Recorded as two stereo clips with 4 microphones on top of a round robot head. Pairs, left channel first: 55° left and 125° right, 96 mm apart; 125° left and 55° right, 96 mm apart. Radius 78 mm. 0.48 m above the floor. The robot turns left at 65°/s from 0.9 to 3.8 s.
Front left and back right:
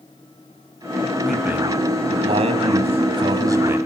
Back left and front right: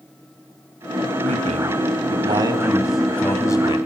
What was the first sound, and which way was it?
A man speaking, 30° right.